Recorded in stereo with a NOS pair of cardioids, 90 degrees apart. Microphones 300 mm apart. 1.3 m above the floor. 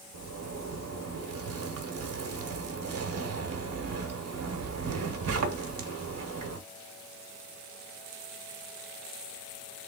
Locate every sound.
0.1 s a zipper: 55° right, 1.0 m